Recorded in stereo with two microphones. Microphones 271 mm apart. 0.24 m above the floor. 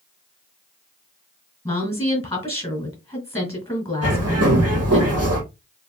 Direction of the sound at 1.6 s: 20° left (ahead or behind).